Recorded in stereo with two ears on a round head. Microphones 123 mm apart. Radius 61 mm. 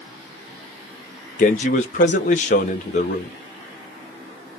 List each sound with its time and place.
1.4 s a man speaking: 55° left (ahead or behind), 1.2 m